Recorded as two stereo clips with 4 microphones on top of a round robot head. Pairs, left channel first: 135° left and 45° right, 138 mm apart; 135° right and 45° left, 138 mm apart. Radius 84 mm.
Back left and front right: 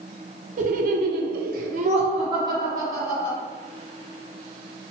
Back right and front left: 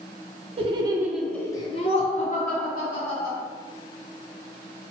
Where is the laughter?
5° right, 0.6 m; by 3.4 s 115° right, 1.3 m.